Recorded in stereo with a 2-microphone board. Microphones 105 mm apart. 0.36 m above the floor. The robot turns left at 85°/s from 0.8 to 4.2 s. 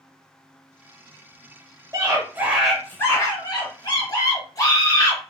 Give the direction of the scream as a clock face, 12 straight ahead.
4 o'clock.